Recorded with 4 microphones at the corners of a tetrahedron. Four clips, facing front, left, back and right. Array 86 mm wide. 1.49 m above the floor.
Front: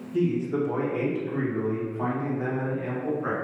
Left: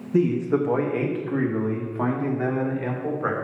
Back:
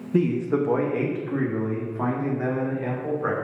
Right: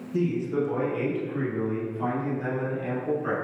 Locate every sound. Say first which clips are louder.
0.1 s a man speaking: left 5 dB, back 3 dB; 145° left, 2.0 m; by 3.3 s 100° left, 6 m